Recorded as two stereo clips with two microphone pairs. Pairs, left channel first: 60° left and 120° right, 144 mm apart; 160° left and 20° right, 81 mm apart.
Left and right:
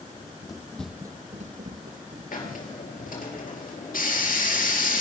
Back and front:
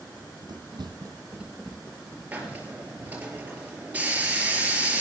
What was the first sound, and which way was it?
Running footsteps, 10° left.